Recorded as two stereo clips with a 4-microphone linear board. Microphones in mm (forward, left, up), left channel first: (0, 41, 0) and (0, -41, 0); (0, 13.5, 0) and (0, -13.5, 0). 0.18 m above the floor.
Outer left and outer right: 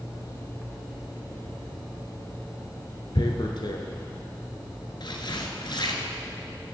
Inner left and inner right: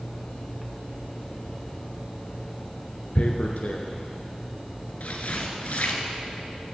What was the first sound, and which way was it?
Tearing paper, 65° left (ahead or behind).